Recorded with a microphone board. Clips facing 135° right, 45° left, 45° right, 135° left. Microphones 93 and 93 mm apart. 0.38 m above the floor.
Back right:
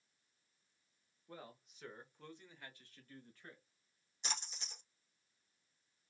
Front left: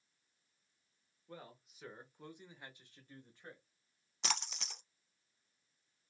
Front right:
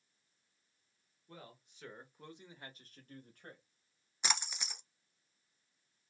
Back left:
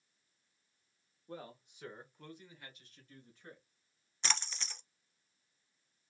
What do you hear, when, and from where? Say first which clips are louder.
1.3 s a man speaking: front left 1 dB, back left 6 dB; 140° left, 1.0 m; by 3.6 s 25° right, 1.7 m
4.2 s a splash: front left 6 dB, front right 1 dB; 30° left, 0.6 m